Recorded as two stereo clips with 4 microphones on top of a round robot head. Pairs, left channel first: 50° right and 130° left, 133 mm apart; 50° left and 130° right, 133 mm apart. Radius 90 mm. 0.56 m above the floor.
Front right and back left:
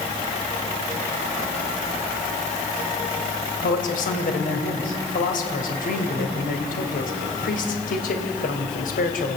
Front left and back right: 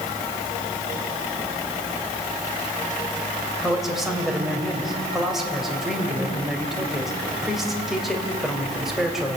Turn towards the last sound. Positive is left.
turn(degrees=-40)